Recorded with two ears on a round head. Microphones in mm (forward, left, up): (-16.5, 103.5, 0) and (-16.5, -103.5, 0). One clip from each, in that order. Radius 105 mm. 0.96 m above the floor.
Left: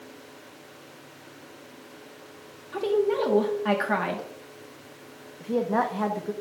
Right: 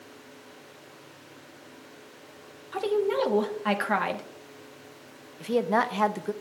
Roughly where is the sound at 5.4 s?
Right.